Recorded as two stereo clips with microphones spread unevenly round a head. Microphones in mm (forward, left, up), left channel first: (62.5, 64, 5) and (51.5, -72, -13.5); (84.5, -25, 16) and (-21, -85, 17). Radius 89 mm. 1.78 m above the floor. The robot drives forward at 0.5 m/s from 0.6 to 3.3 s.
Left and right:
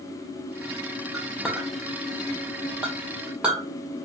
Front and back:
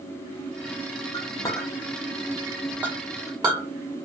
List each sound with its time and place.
1.1 s a clink: 5° left, 1.1 m; by 3.7 s 175° left, 1.0 m